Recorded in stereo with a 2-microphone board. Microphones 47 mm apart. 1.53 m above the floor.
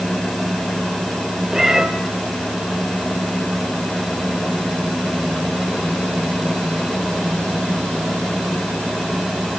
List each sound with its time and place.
1.5 s a cat meowing: 10° right (ahead or behind), 2.5 m